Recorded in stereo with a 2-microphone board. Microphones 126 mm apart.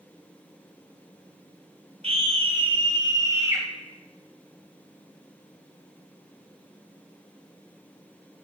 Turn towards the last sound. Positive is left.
turn(degrees=-20)  # may be behind; listen again after turning